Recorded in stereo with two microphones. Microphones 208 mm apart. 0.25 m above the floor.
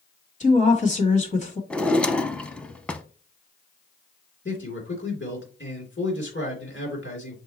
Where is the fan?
No fan in this recording.